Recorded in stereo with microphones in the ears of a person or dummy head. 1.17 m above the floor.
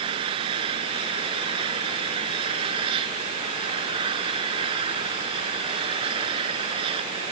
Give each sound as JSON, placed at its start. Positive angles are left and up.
{"t": 0.0, "sound": "an engine running", "side_deg": -30}